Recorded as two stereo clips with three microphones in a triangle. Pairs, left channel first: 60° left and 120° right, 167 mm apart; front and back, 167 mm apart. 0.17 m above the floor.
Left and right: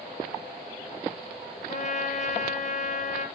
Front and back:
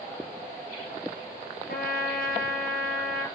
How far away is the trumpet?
About 3 m.